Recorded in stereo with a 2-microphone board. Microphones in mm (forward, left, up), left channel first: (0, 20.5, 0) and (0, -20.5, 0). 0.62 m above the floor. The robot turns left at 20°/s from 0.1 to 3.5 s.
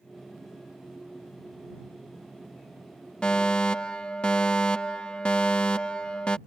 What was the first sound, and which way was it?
A fire alarm, 25° left (ahead or behind).